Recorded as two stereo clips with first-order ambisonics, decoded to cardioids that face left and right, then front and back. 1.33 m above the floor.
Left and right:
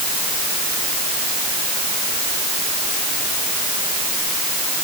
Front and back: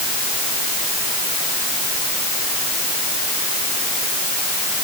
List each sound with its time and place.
Only background noise.